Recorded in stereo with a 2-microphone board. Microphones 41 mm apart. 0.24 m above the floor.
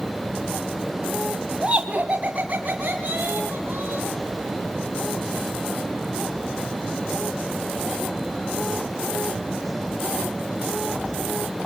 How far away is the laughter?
About 1.6 m.